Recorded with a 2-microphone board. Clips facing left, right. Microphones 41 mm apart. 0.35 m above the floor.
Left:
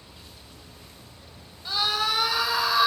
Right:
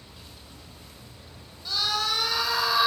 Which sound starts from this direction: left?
A scream, at 1.6 s.